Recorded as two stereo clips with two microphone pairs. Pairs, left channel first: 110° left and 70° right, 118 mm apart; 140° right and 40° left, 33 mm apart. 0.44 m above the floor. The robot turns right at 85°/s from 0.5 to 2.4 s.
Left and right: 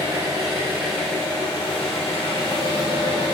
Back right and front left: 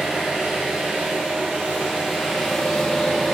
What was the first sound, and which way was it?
An engine running, 15° right.